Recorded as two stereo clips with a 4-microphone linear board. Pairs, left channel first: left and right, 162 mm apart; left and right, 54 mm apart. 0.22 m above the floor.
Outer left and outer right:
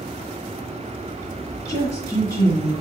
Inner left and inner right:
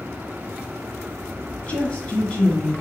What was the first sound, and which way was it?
A woman speaking, 20° left (ahead or behind).